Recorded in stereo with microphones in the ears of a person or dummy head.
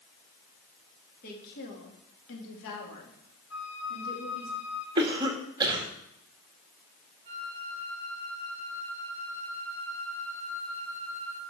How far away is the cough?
About 2 m.